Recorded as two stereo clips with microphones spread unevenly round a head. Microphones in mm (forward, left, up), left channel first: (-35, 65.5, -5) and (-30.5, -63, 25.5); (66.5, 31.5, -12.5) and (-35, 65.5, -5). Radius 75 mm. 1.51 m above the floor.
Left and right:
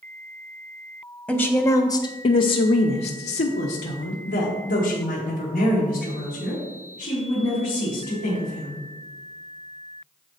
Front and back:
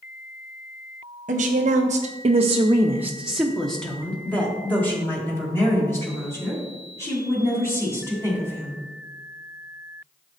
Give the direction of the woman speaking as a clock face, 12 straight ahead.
6 o'clock.